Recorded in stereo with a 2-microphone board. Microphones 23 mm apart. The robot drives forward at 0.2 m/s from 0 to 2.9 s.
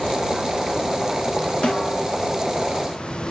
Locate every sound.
1.6 s a snare drum: 45° left (ahead or behind), 2.5 m; by 2.2 s 40° left (ahead or behind), 2.5 m